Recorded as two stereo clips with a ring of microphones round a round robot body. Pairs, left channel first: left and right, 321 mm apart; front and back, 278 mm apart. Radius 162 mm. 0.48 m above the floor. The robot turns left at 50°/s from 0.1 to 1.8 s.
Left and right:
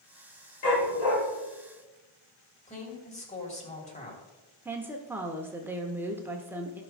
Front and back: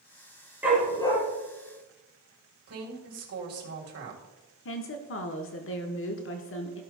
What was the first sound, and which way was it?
A dog barking, 95° left.